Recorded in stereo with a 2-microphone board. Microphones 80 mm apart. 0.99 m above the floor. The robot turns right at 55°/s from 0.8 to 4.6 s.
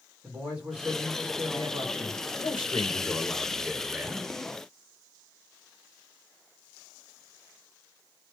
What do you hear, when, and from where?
0.2 s a man speaking: 165° right, 2.5 m; by 2.2 s 90° right, 2.5 m
2.4 s a man speaking: 105° left, 0.7 m; by 4.3 s 150° right, 0.7 m